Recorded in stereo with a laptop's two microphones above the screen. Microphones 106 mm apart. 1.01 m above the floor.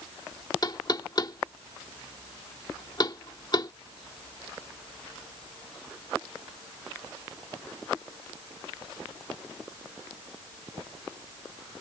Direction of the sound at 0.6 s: 45° left (ahead or behind).